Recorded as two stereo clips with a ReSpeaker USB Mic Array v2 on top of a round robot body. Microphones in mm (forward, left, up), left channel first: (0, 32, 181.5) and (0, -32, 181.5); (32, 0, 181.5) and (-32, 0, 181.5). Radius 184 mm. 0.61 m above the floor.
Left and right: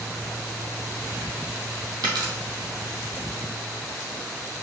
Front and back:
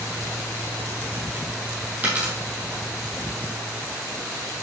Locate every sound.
2.0 s a dropped coin: 115° right, 2 m